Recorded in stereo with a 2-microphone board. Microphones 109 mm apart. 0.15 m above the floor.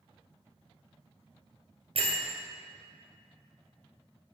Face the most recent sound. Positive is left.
turn(degrees=-65)  # may be behind; listen again after turning